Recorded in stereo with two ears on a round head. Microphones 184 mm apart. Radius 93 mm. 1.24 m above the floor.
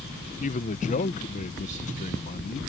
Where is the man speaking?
40° left (ahead or behind).